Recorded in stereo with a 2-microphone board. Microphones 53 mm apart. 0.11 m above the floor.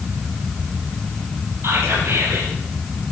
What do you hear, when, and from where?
1.6 s whispering: 60° right (ahead or behind), 3 m